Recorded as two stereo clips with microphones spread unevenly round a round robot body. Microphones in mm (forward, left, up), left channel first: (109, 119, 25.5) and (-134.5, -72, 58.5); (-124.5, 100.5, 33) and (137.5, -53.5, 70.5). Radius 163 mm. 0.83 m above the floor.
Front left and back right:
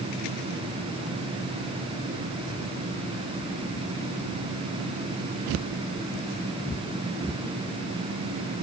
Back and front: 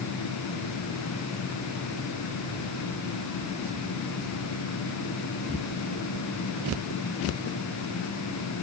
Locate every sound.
Only background noise.